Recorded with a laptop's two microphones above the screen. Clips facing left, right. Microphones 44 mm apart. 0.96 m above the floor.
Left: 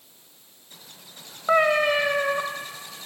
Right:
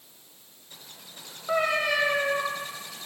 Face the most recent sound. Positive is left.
turn(degrees=50)  # may be behind; listen again after turning